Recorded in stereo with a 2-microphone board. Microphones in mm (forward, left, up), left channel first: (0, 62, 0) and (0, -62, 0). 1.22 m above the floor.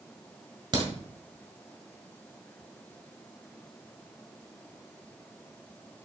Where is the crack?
35° right (ahead or behind), 1.7 m.